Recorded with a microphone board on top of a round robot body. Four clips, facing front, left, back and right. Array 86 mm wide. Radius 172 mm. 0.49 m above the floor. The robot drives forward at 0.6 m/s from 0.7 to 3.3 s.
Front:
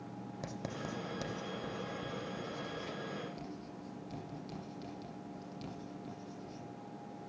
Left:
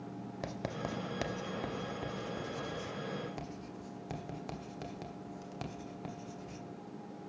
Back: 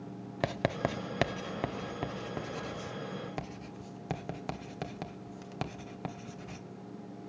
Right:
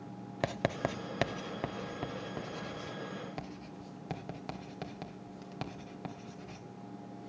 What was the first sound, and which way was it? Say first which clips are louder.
Writing: right 7 dB, back 12 dB; 145° right.